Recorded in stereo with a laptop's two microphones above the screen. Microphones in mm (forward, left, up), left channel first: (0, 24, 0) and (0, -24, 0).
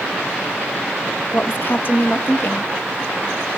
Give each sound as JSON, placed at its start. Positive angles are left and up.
{"t": 1.3, "sound": "a woman speaking", "side_deg": 50, "distance_m": 1.3}